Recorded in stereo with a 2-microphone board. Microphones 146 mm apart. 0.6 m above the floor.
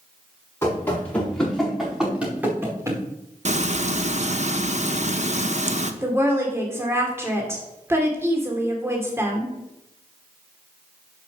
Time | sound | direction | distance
0.6 | running footsteps | 15° left (ahead or behind) | 5 m
3.5 | frying | 50° right (ahead or behind) | 0.7 m
6.0 | a woman speaking | 20° right (ahead or behind) | 1.9 m